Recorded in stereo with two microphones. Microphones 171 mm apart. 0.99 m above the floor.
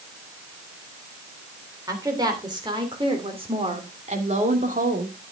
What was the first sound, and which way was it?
A woman speaking, 20° right (ahead or behind).